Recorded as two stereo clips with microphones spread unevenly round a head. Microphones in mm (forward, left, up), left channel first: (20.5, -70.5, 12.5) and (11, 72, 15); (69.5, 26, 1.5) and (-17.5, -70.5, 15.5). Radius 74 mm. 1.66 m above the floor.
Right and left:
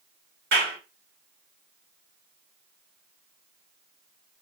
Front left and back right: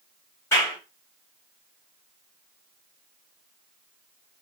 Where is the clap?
125° left, 2 m.